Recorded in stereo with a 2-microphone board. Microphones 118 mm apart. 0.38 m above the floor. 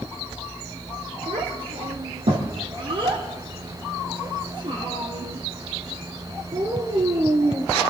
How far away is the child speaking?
About 7 m.